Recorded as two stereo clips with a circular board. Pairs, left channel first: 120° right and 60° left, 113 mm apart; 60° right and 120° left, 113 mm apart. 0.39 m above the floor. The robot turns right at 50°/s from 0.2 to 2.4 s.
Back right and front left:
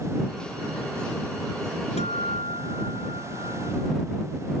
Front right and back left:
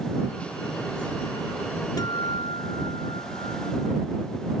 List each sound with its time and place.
2.0 s a guitar: 115° right; by 4.0 s 95° right